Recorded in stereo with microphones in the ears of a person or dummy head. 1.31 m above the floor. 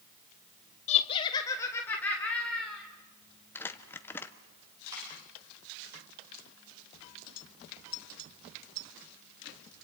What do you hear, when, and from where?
0.9 s laughter: 35° left (ahead or behind), 0.7 m; by 2.8 s 5° left (ahead or behind), 2.0 m
3.5 s crumpling: 15° left (ahead or behind), 0.9 m
4.9 s a dropped coin: 15° right (ahead or behind), 9 m